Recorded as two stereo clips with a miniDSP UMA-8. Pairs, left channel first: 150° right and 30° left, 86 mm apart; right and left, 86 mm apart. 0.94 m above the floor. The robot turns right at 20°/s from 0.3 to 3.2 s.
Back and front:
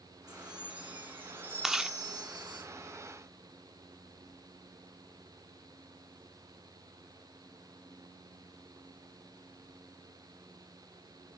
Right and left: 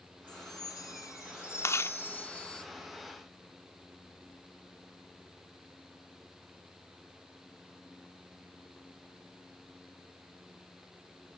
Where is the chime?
55° right, 8 m; by 2.6 s 10° right, 8 m.